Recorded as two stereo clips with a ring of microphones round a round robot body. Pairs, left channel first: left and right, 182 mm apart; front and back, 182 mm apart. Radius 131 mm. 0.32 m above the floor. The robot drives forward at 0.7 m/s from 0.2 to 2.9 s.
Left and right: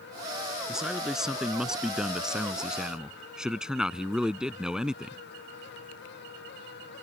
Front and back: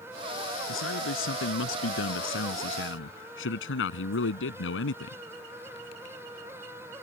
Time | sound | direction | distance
0.7 | a man speaking | 5° right | ?